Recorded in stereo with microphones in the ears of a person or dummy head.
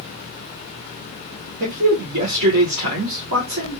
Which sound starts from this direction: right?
A man speaking, at 1.6 s.